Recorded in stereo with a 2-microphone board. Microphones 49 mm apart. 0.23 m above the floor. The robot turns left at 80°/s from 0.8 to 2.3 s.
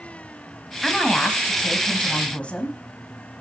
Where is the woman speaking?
170° left, 1.1 m; by 2.8 s 55° left, 1.1 m.